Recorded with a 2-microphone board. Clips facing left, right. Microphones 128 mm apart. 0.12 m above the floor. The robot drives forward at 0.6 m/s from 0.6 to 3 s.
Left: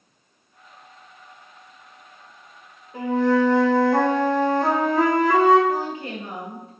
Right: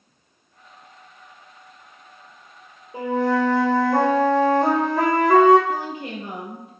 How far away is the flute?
About 1.6 m.